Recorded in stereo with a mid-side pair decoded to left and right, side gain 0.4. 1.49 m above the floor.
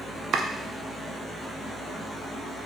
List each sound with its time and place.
0.3 s chopping: 65° right, 0.5 m